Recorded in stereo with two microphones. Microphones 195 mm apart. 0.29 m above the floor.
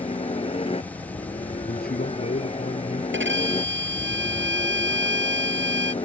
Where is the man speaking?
50° left (ahead or behind).